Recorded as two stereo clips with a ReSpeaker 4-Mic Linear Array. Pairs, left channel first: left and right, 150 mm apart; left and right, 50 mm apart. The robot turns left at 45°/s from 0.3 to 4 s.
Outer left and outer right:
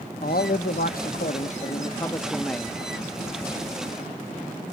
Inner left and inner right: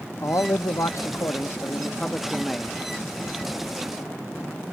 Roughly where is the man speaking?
Left.